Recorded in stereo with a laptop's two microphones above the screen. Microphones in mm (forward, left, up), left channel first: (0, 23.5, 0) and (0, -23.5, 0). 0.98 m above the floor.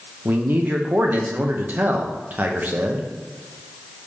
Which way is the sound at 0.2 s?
40° right (ahead or behind).